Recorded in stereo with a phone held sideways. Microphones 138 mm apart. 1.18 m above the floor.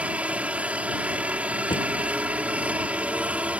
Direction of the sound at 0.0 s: 10° right (ahead or behind).